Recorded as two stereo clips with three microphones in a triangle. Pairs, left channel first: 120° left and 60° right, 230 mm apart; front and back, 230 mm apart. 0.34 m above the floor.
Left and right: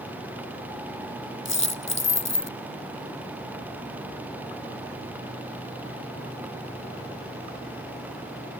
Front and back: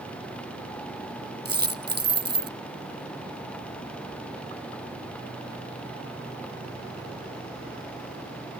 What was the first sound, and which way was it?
A dropped coin, 140° left.